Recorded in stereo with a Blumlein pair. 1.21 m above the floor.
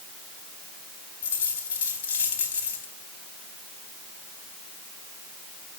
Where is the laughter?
No laughter in this recording.